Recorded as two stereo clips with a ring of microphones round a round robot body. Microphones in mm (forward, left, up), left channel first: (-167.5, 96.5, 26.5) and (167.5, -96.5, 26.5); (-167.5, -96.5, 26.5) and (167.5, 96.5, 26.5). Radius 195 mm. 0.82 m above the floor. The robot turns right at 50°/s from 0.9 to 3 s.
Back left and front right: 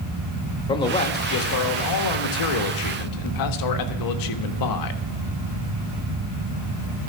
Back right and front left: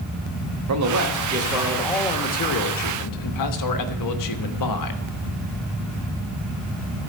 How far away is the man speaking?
About 1.3 m.